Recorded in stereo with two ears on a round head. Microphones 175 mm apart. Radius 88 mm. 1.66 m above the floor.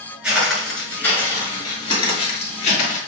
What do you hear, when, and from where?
0.2 s footsteps: 5° right (ahead or behind), 1.6 m; by 3.0 s 40° left (ahead or behind), 2 m